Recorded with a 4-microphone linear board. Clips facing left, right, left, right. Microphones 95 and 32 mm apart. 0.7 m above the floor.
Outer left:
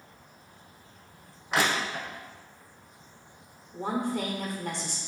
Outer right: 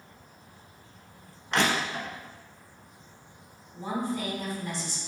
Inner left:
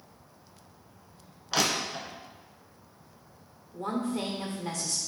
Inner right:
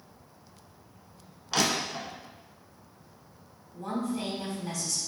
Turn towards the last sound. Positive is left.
turn(degrees=60)  # may be behind; listen again after turning